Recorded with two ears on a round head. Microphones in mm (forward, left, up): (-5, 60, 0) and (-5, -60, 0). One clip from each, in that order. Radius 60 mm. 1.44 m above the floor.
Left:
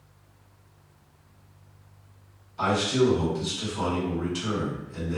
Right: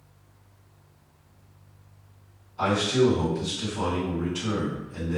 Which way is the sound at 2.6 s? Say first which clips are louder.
Right 1 dB; 40° left (ahead or behind).